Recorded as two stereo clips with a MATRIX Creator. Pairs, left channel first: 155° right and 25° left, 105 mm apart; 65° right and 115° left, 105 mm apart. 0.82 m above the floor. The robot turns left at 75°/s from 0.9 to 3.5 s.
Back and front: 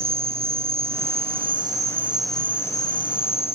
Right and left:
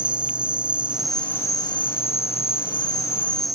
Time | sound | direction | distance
0.0 | an insect | 35° left | ?